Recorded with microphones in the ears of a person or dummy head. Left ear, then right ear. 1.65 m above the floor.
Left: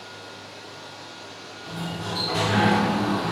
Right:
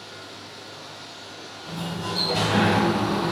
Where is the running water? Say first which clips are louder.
Even; 35° left (ahead or behind), 1.2 m.